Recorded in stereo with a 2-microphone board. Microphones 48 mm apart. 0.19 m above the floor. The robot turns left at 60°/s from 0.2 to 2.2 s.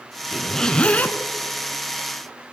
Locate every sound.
0.3 s a zipper: 175° right, 0.9 m; by 1.2 s 130° left, 0.9 m